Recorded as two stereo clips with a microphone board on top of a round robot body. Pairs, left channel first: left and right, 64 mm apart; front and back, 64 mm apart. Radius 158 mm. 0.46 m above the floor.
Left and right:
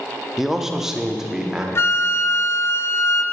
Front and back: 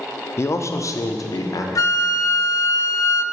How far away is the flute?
About 0.6 m.